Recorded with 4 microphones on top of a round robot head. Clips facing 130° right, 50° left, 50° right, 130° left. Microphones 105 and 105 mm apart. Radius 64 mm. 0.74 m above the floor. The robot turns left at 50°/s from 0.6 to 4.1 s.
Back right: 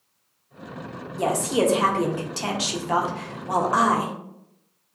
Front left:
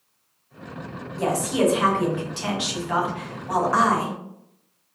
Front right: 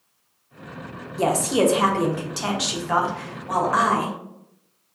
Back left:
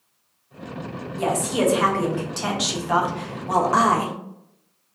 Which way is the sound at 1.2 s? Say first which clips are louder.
Even, front right 2 dB; 65° right.